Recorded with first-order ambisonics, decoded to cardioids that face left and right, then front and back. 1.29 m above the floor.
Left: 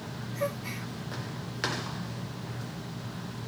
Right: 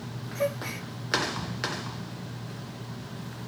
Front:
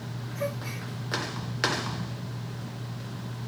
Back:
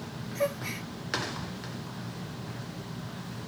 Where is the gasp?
135° right, 1.0 m.